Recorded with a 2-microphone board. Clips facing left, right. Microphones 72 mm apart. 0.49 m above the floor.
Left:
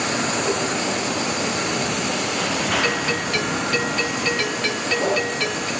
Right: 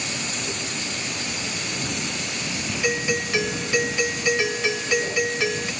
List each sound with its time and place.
0.0 s a vehicle: 70° left (ahead or behind); by 5.8 s 85° left
2.8 s a doorbell: 15° right (ahead or behind)